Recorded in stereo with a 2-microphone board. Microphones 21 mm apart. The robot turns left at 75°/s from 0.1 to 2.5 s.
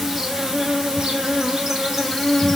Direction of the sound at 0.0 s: 15° right.